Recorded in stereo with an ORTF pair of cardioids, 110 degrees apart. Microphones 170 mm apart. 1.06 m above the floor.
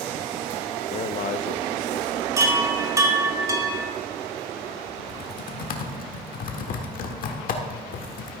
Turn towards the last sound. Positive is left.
turn(degrees=55)